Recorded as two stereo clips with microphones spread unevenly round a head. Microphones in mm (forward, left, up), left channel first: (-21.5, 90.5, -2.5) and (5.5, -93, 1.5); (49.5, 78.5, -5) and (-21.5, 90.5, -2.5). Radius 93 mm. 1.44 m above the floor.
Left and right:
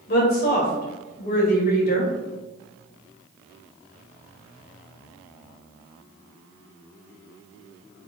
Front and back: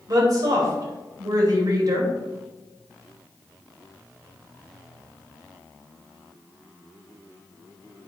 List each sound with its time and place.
0.1 s a woman speaking: 140° left, 2.5 m